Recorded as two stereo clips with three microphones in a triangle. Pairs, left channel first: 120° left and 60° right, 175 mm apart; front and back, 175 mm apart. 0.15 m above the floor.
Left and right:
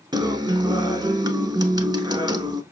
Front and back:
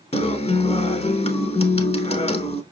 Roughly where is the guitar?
Ahead.